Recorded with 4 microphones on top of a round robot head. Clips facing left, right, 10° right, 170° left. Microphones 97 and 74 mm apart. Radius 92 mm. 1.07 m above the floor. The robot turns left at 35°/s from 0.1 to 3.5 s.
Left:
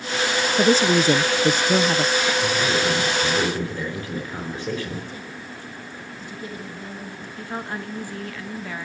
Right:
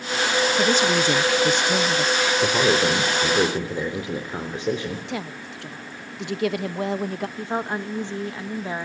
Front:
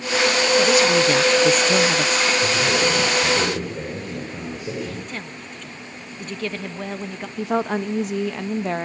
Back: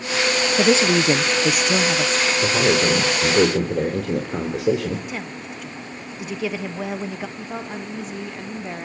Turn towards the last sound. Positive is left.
turn(degrees=-20)